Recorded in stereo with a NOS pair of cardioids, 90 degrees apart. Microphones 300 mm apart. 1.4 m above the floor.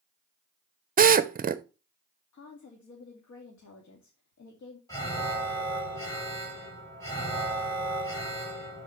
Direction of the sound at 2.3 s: 65° left.